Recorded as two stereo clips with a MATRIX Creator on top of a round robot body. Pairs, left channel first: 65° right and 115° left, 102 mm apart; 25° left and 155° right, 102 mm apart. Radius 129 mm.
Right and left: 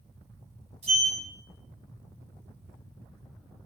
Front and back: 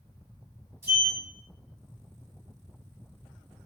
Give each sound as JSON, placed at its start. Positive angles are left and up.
{"t": 0.8, "sound": "a sliding door", "azimuth_deg": 130, "distance_m": 4.0}